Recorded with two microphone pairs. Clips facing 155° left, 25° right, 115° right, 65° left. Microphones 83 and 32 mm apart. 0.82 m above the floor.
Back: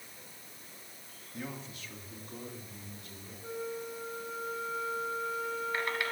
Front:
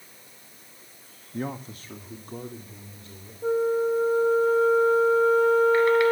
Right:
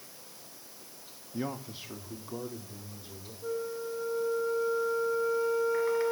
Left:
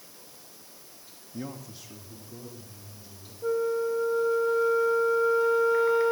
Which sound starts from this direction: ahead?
A flute, at 3.4 s.